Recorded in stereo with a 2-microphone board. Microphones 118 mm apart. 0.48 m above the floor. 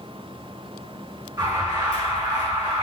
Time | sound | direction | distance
1.4 | an alarm | 30° right (ahead or behind) | 4 m